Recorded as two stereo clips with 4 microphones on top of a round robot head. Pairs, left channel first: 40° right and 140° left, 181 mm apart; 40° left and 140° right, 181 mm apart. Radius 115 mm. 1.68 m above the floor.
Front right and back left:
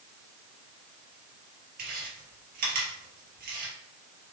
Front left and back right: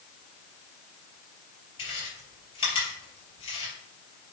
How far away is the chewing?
About 4.5 m.